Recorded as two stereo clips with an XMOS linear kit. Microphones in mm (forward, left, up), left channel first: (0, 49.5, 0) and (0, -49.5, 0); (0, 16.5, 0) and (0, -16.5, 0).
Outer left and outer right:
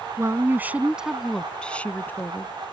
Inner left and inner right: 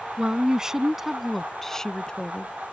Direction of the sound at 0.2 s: 30° right (ahead or behind).